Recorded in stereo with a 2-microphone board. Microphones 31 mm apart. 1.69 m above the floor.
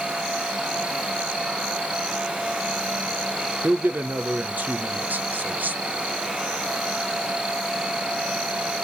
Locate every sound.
3.6 s a man speaking: 80° right, 0.8 m